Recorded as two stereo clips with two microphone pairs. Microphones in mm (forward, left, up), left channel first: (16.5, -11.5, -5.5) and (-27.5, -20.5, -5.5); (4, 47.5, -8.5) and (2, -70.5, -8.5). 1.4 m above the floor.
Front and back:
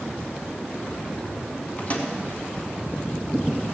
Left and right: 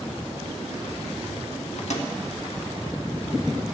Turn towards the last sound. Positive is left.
turn(degrees=65)